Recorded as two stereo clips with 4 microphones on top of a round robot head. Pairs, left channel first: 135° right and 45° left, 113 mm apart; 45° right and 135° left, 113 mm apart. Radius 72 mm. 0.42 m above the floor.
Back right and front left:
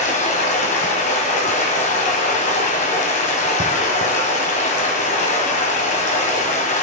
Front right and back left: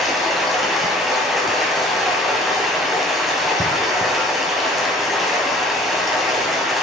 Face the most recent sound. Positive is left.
turn(degrees=-135)